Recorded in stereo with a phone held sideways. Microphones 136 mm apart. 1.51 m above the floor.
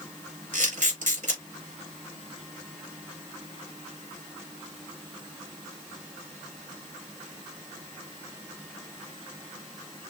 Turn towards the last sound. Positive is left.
turn(degrees=-70)  # may be behind; listen again after turning